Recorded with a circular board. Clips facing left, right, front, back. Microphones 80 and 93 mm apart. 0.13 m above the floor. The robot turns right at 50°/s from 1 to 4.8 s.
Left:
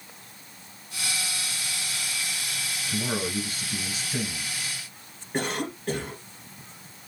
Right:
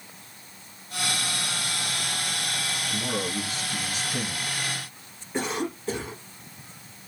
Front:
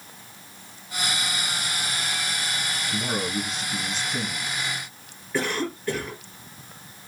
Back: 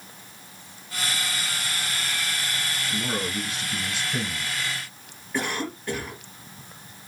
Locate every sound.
2.9 s a man speaking: 55° left, 1.8 m; by 4.5 s 135° left, 1.8 m
5.3 s a cough: 90° left, 2 m